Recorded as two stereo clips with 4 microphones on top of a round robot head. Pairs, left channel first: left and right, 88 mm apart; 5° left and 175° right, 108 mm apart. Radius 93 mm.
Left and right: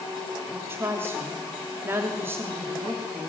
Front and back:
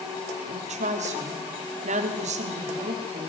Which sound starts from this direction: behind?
A woman speaking, at 0.5 s.